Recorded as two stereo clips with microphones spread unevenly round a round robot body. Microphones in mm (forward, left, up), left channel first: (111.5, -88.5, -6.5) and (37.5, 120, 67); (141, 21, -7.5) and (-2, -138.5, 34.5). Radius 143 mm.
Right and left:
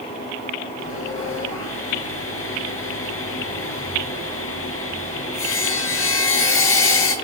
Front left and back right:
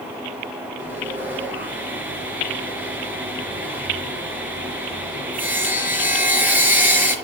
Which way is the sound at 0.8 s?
50° right.